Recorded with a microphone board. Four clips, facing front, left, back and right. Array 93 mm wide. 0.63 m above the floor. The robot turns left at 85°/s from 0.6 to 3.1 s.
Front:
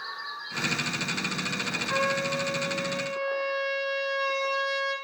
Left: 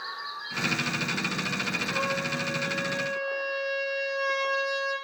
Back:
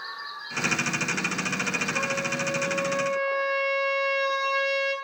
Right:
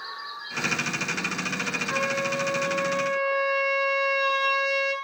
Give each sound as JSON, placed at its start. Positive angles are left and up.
{"t": 1.9, "sound": "a trumpet", "azimuth_deg": -20, "distance_m": 5.0}